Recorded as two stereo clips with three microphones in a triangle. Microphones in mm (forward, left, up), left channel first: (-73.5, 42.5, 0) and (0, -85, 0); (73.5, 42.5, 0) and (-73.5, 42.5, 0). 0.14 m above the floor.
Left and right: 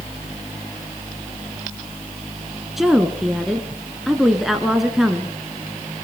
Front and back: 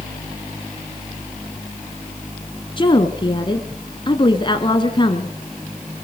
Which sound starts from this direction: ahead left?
A woman speaking, at 2.8 s.